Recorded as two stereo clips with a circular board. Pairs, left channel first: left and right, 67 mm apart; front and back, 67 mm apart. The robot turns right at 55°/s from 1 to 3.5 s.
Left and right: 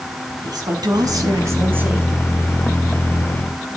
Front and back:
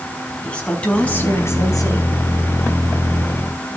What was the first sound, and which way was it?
A woman speaking, 75° right.